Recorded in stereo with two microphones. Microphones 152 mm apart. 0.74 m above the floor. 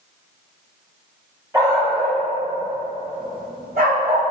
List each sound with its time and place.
1.5 s a dog barking: 20° right (ahead or behind), 1.6 m; by 4.2 s 75° right (ahead or behind), 1.4 m